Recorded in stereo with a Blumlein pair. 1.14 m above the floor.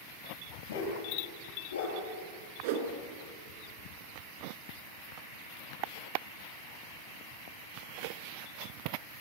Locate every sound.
0.7 s a dog barking: 60° left, 8.5 m
2.6 s a whoosh: 50° right, 3.5 m